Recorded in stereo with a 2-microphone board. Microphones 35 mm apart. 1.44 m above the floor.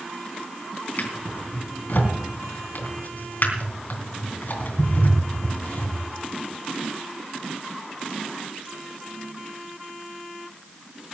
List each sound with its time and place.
1.0 s a drawer: 60° left (ahead or behind), 3 m